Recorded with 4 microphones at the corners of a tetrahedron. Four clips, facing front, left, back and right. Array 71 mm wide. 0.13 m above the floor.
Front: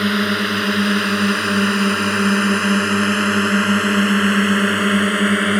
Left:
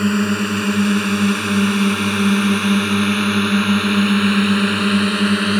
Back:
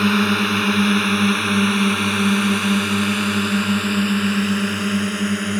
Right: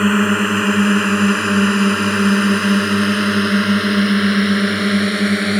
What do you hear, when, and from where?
0.0 s a drone: 85° right; by 5.6 s 5° right